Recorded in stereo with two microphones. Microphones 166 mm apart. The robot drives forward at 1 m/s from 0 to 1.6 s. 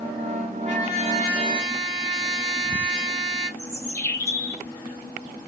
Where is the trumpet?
40° right (ahead or behind), 1.7 m; by 3.5 s 30° right (ahead or behind), 2 m.